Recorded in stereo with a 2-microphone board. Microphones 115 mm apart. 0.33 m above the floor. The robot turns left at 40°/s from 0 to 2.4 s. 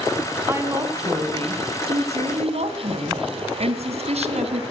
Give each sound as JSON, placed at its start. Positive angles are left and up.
{"t": 0.5, "sound": "a woman speaking", "azimuth_deg": -20, "distance_m": 2.5}